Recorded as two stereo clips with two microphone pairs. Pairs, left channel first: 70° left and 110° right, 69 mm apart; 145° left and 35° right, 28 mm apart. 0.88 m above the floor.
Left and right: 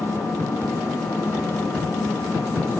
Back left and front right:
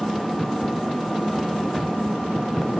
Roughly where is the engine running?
Left.